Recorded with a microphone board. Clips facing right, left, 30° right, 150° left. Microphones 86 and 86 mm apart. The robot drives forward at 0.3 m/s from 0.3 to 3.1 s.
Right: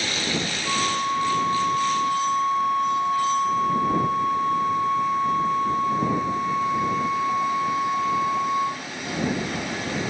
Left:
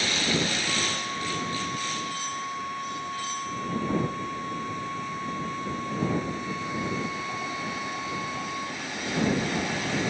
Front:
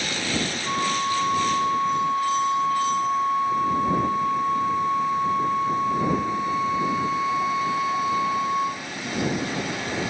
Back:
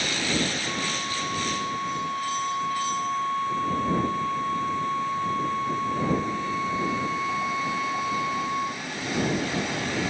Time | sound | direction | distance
0.7 | a flute | 65° right | ?